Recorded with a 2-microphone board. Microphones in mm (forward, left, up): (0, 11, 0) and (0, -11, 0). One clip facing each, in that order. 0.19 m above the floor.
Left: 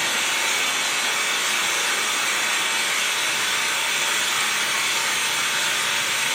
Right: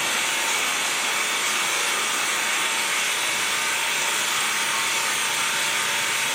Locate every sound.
0.0 s an engine running: 45° left (ahead or behind), 1.6 m